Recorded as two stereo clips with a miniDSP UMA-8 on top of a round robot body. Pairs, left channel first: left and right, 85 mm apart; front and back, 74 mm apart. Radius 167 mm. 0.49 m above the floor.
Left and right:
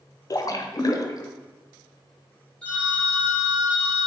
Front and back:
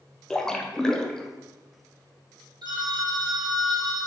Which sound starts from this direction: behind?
A phone ringing, at 2.6 s.